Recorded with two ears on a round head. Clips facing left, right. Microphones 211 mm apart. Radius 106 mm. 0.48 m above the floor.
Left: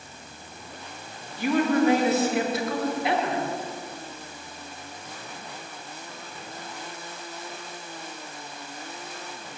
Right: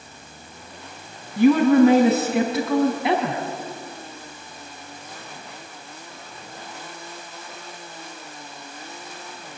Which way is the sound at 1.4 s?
50° right (ahead or behind).